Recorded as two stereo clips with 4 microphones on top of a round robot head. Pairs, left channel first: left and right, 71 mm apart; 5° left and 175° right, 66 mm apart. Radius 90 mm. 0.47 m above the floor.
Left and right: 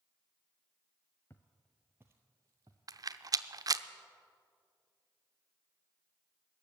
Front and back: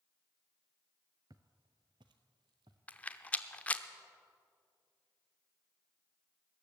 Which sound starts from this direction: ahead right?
A rattle, at 2.9 s.